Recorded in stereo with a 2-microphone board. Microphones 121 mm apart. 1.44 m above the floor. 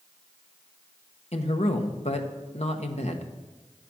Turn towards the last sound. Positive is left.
turn(degrees=65)  # may be behind; listen again after turning